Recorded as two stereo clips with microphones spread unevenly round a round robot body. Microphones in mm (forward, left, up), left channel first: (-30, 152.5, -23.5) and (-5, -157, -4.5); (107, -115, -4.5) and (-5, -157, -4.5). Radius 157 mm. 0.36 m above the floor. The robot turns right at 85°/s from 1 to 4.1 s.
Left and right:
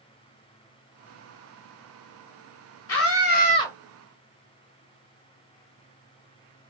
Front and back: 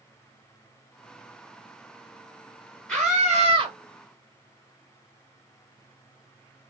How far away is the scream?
About 1.4 m.